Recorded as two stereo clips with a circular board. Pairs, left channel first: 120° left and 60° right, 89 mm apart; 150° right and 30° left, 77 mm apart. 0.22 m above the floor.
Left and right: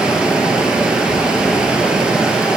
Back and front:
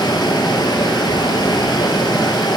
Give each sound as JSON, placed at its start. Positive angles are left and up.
{"t": 0.0, "sound": "running water", "azimuth_deg": -140, "distance_m": 1.5}